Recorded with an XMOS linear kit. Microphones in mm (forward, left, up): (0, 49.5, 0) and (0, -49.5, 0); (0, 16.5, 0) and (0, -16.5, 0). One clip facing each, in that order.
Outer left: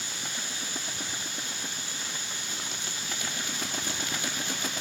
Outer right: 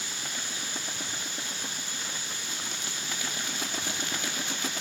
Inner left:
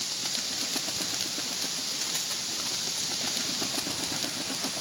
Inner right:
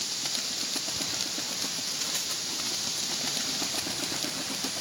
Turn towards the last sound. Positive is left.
No sound to turn to.